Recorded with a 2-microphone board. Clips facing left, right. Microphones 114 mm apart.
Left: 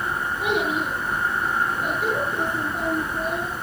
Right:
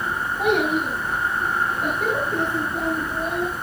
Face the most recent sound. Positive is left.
turn(degrees=-60)  # may be behind; listen again after turning